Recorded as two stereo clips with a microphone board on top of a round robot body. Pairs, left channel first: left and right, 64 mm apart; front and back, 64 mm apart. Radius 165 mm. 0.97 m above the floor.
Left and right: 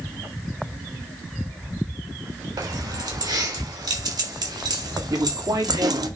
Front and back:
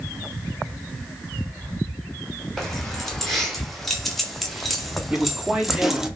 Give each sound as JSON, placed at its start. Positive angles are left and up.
{"t": 2.6, "sound": "keys jangling", "azimuth_deg": -85, "distance_m": 3.0}
{"t": 5.1, "sound": "a man speaking", "azimuth_deg": -105, "distance_m": 3.5}